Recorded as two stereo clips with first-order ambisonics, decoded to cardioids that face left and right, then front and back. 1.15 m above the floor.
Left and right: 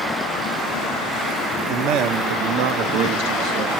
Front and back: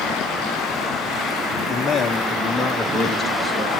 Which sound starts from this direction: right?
A man speaking, at 1.7 s.